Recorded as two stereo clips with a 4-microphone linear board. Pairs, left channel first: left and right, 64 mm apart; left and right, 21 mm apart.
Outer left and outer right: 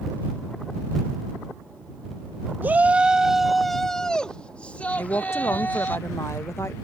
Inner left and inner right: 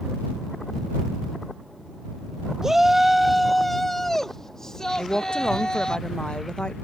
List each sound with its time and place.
2.6 s a shout: 25° right (ahead or behind); by 6.0 s 30° left (ahead or behind)
5.0 s a woman speaking: 40° left (ahead or behind)